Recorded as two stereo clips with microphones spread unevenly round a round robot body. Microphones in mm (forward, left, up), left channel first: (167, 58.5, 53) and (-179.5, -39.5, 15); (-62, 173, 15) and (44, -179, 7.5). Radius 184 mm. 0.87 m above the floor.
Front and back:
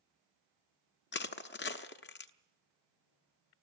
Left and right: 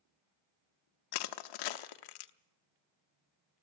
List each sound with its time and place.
1.1 s crushing: 75° left, 0.9 m